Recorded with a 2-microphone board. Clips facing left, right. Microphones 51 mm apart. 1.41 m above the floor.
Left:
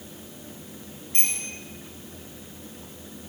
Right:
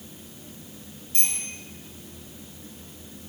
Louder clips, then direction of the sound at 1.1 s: Left 3 dB; 50° left (ahead or behind).